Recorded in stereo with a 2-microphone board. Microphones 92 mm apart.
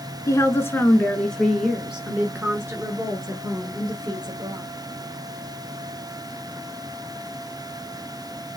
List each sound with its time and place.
0.3 s a woman speaking: 35° left (ahead or behind), 1.2 m; by 4.7 s 50° right (ahead or behind), 2 m